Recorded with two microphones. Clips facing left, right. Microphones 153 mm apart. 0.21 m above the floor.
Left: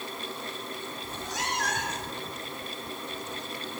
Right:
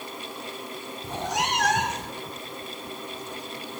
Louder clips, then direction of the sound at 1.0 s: Right 9 dB; 75° right (ahead or behind).